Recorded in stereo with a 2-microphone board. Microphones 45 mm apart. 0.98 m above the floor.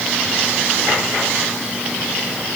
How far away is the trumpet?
I don't hear a trumpet.